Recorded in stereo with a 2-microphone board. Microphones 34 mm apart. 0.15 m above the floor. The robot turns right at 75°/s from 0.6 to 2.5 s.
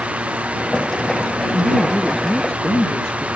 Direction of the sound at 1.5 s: 55° right.